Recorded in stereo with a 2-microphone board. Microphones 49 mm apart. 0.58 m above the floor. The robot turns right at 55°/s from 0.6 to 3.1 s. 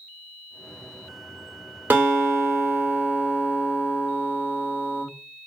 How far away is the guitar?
About 1.7 m.